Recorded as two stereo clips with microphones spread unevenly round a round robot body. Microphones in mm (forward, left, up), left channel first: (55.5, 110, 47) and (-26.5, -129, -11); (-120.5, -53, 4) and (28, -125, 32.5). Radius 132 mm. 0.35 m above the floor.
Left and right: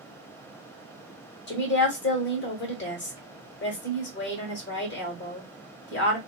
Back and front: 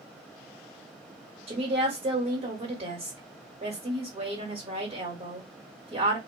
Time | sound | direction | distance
1.5 | a woman speaking | 30° left | 1.2 m